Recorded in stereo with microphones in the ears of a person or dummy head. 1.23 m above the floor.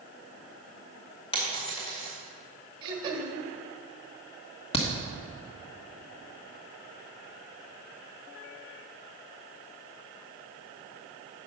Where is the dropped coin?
25° left (ahead or behind), 2 m.